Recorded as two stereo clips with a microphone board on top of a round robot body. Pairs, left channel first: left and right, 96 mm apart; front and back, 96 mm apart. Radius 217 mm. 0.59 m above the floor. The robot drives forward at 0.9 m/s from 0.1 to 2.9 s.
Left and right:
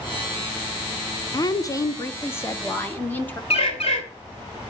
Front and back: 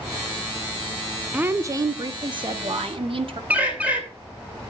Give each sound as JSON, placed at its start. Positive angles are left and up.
{"t": 1.3, "sound": "a woman speaking", "azimuth_deg": 110, "distance_m": 1.0}
{"t": 3.5, "sound": "a bird", "azimuth_deg": 105, "distance_m": 2.5}